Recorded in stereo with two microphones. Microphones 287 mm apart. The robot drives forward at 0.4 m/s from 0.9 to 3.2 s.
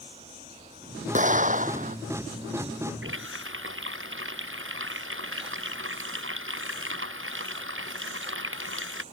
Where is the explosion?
25° right (ahead or behind); by 2.0 s 30° right (ahead or behind).